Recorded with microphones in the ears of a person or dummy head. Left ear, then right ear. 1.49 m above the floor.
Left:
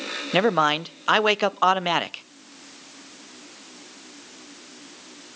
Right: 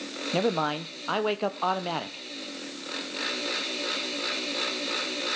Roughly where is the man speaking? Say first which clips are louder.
Left 7 dB; left.